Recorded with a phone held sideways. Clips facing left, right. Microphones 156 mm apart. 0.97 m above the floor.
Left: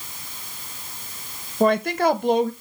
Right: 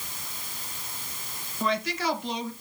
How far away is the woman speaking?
About 1.1 m.